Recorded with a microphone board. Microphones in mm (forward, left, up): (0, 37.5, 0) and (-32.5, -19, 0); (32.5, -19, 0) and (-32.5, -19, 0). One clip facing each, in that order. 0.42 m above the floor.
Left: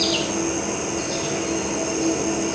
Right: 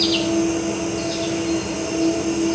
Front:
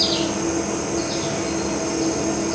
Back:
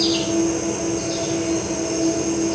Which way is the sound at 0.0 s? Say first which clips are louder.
Right 4 dB, back 3 dB; 15° right.